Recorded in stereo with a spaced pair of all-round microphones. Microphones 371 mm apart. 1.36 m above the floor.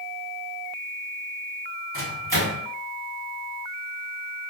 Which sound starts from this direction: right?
A microwave, at 1.9 s.